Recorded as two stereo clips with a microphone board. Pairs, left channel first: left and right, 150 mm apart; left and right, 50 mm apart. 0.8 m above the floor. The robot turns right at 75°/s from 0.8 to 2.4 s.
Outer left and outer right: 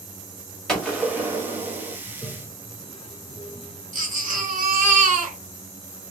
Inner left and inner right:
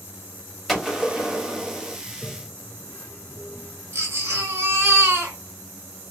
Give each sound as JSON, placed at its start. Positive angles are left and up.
{"t": 0.7, "sound": "a gunshot", "azimuth_deg": 175, "distance_m": 1.3}
{"t": 2.1, "sound": "a toilet flushing", "side_deg": 20, "distance_m": 0.6}
{"t": 3.9, "sound": "a baby crying", "side_deg": -60, "distance_m": 1.1}